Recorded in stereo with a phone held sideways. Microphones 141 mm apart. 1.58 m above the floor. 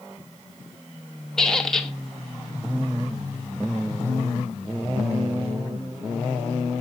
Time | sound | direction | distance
1.4 | a squeak | 5° left (ahead or behind) | 0.9 m